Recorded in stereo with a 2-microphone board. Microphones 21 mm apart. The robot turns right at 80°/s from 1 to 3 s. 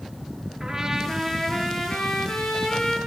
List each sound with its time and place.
0.6 s a trumpet: 20° right, 5 m; by 3.0 s 140° left, 5 m